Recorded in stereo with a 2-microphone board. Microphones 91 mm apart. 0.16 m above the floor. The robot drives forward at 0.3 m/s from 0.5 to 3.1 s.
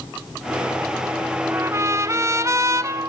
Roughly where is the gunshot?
No gunshot in this recording.